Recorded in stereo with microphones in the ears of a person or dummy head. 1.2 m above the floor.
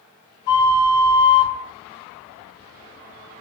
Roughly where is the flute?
Left.